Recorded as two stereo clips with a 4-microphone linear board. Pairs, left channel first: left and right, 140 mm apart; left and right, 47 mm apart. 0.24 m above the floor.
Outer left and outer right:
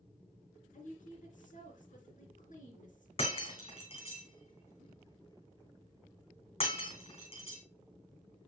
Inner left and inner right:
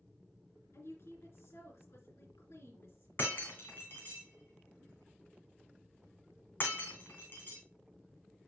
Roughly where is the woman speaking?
Left.